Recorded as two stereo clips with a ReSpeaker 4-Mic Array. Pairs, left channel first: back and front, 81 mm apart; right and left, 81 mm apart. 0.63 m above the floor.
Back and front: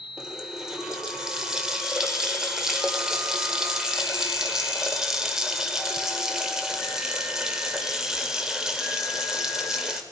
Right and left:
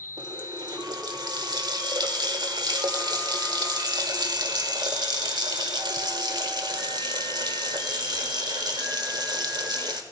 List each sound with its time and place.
0.2 s a running tap: 80° left, 1.4 m